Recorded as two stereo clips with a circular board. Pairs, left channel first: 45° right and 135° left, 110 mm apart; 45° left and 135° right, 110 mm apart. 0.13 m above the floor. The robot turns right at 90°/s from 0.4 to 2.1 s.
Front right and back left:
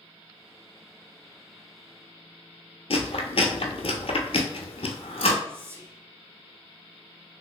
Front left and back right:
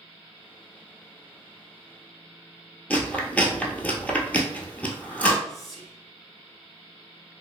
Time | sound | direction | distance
2.9 | chewing | 30° right | 0.7 m
5.5 | whispering | 130° left | 1.1 m